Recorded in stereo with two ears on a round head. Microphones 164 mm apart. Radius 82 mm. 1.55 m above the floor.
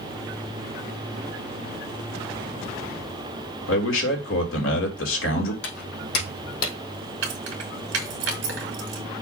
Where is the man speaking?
80° left, 2.5 m.